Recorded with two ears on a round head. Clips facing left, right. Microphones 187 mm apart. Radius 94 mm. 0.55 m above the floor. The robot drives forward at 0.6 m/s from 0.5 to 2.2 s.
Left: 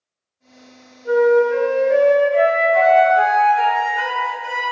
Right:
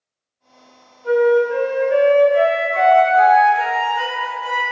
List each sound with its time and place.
1.0 s a flute: 75° right (ahead or behind), 1.4 m; by 4.6 s 50° right (ahead or behind), 1.7 m